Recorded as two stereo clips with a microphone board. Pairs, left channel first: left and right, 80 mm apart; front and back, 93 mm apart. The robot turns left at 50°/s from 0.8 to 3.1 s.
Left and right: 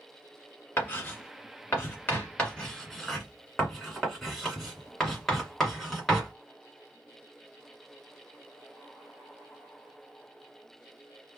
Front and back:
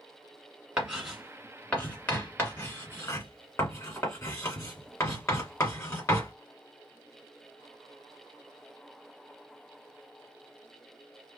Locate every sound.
0.8 s writing: 115° left, 1.7 m; by 6.3 s straight ahead, 1.7 m